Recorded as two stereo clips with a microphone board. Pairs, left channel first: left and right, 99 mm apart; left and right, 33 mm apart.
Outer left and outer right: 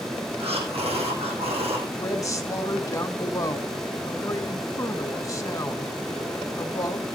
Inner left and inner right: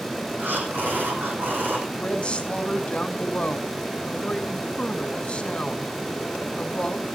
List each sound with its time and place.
0.4 s breathing: 85° right, 3 m
1.9 s a woman speaking: 35° left (ahead or behind), 1.8 m